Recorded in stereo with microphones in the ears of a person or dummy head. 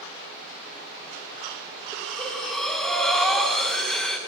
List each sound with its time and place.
1.9 s breathing: centre (ahead or behind), 1.0 m